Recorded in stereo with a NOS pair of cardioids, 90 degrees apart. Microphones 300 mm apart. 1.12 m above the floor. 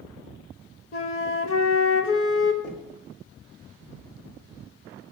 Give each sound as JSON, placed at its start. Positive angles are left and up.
{"t": 0.9, "sound": "a flute", "azimuth_deg": 45, "distance_m": 1.4}
{"t": 2.6, "sound": "knocking", "azimuth_deg": 50, "distance_m": 3.0}